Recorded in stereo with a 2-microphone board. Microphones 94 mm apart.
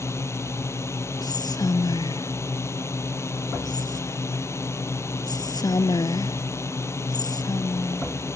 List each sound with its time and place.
0.0 s a drone: 30° left (ahead or behind)
1.2 s whispering: 50° left (ahead or behind)